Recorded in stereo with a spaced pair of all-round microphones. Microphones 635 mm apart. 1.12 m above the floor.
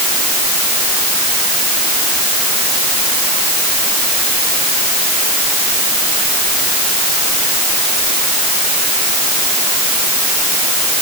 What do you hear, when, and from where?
Only background noise.